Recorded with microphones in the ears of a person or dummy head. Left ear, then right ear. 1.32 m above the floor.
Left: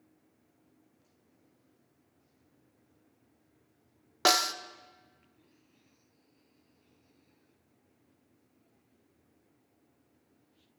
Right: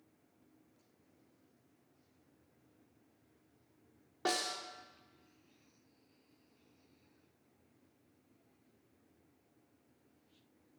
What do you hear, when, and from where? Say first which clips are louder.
4.2 s a snare drum: left 10 dB; 65° left (ahead or behind), 0.6 m